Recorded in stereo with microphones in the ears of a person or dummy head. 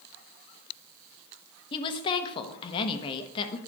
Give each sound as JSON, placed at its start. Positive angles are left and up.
{"t": 1.7, "sound": "a woman speaking", "side_deg": 30, "distance_m": 1.1}